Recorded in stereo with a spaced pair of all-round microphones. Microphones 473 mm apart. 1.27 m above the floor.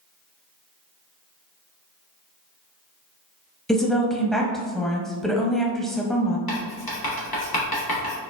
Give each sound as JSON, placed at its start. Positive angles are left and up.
{"t": 3.7, "sound": "a woman speaking", "side_deg": 0, "distance_m": 0.5}
{"t": 6.5, "sound": "writing", "side_deg": 50, "distance_m": 1.0}